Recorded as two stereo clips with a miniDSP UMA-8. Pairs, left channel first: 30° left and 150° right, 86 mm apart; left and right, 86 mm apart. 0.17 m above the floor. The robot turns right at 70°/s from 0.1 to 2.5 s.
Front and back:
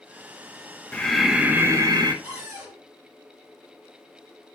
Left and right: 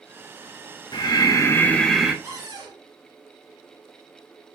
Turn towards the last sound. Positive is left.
turn(degrees=-105)